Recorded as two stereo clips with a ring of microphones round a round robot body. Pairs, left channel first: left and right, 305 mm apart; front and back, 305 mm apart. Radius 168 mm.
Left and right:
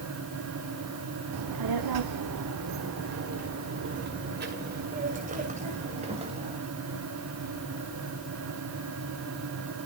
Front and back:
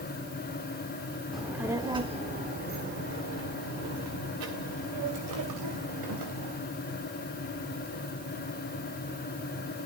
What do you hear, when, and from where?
1.3 s a child speaking: 90° right, 1.4 m; by 6.6 s 160° right, 3 m